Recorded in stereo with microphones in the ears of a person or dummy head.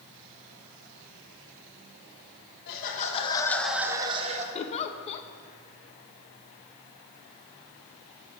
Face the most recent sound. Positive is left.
turn(degrees=35)  # may be behind; listen again after turning